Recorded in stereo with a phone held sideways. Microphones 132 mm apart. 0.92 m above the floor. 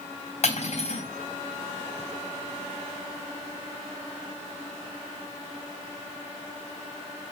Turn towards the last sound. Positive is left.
turn(degrees=60)  # may be behind; listen again after turning